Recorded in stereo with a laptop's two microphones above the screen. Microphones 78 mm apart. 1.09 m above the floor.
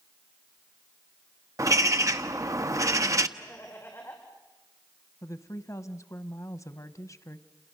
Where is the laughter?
30° left (ahead or behind), 4.5 m.